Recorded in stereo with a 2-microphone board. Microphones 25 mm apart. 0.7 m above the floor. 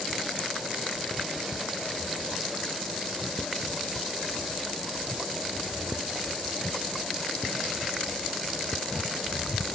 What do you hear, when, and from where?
Only background noise.